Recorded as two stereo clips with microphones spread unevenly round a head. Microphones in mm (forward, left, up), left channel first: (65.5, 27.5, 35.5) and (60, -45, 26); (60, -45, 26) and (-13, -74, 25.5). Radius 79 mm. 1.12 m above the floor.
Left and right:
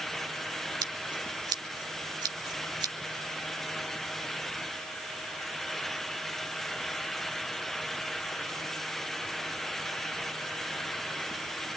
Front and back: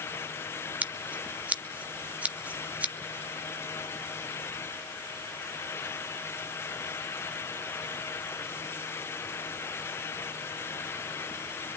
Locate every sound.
0.8 s scissors: 95° right, 1.1 m